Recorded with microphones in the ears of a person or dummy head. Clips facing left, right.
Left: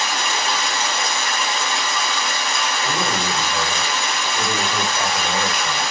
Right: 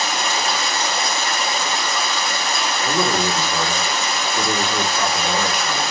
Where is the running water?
35° right (ahead or behind), 0.7 m.